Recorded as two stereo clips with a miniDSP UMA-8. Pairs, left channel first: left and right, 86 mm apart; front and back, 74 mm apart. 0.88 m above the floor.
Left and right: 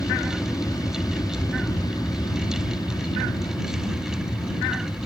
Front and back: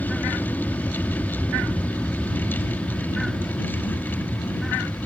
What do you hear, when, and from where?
0.0 s an aircraft: 60° left; by 5.1 s 80° left